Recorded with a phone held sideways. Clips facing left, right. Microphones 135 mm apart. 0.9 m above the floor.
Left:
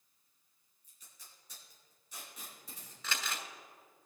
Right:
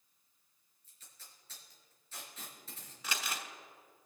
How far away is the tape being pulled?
About 3 m.